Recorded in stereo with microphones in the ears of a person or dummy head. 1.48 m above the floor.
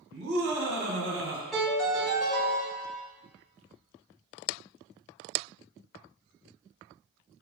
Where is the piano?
Centre (ahead or behind), 1.9 m.